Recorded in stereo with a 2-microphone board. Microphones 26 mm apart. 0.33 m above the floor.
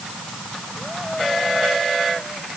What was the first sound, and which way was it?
Only background noise.